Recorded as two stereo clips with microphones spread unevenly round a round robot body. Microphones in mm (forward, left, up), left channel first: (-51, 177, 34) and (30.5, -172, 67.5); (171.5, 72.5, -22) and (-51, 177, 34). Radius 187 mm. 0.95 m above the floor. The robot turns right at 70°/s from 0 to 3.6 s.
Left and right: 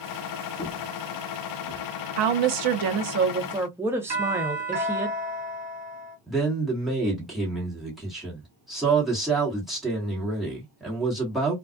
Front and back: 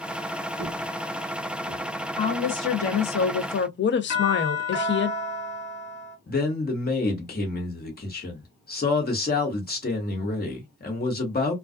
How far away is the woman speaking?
About 0.6 m.